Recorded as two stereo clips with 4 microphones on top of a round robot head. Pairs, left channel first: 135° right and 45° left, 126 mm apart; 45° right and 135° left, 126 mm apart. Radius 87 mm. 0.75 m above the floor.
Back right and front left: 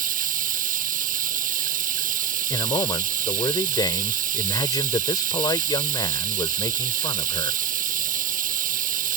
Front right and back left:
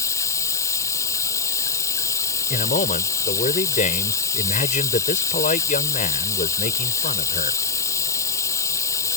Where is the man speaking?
75° right.